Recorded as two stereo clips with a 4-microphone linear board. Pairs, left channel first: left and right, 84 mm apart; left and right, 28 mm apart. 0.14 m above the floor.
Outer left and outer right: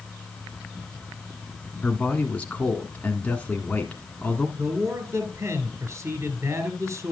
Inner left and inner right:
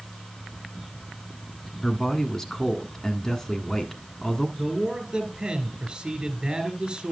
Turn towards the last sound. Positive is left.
turn(degrees=-35)  # may be behind; listen again after turning